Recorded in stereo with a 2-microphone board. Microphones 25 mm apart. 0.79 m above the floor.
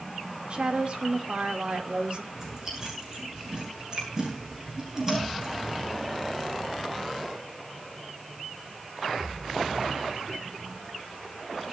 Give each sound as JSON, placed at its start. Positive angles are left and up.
{"t": 0.5, "sound": "a woman speaking", "side_deg": -50, "distance_m": 3.0}
{"t": 2.3, "sound": "chewing", "side_deg": -20, "distance_m": 9.5}